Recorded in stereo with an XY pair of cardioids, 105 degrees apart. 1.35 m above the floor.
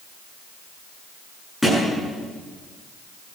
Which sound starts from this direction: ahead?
A thud, at 1.6 s.